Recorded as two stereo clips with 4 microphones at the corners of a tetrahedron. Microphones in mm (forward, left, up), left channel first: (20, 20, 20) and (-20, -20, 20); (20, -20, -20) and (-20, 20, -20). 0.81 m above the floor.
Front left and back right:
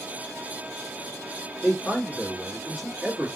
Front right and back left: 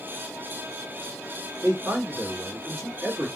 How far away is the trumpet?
No trumpet in this recording.